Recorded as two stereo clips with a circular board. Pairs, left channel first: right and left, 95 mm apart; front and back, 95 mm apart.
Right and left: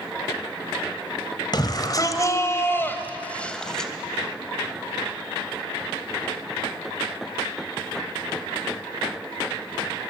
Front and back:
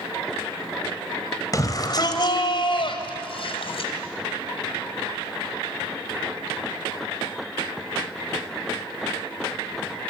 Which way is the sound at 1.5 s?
50° right.